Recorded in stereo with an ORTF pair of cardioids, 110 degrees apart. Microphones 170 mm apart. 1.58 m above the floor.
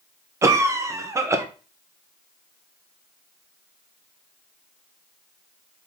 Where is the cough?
20° right, 1.0 m.